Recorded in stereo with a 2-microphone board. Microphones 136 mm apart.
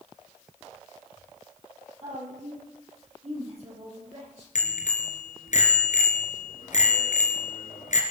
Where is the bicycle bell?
65° left (ahead or behind), 3 m.